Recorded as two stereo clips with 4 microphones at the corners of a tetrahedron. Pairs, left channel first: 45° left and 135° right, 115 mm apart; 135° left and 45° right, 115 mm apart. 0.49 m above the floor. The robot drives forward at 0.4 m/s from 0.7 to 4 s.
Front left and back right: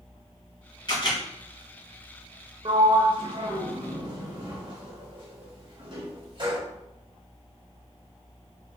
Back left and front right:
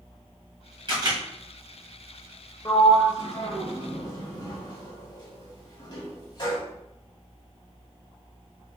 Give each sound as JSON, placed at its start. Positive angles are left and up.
{"t": 0.9, "sound": "a camera shutter", "azimuth_deg": 0, "distance_m": 2.0}
{"t": 2.6, "sound": "a sliding door", "azimuth_deg": -175, "distance_m": 0.9}